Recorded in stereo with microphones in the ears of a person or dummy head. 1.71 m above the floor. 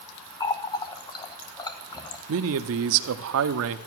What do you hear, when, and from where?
0.4 s a running tap: 25° left (ahead or behind), 0.9 m
2.3 s a man speaking: 65° right (ahead or behind), 0.8 m